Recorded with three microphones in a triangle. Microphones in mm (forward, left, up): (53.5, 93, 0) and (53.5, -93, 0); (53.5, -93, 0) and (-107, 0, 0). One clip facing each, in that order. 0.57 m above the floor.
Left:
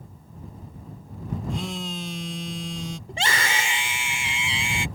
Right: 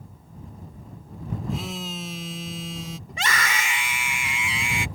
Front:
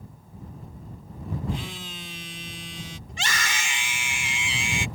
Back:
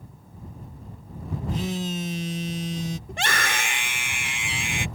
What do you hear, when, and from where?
1.5 s a phone buzzing: 175° right
3.1 s a scream: 145° left